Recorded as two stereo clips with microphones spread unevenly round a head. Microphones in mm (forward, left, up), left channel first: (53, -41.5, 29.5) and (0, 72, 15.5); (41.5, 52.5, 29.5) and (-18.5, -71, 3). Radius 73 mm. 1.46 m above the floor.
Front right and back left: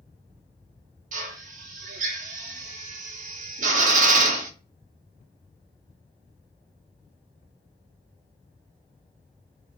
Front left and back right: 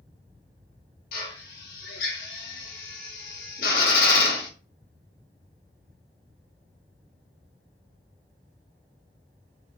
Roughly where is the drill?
Left.